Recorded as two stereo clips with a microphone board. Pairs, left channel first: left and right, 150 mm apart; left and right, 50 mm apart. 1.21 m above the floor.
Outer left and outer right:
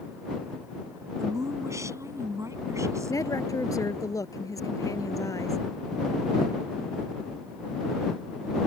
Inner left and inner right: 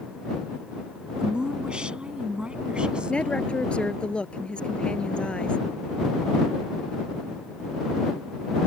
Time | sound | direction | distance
1.2 | a woman speaking | 20° right (ahead or behind) | ?
3.1 | a woman speaking | 20° left (ahead or behind) | ?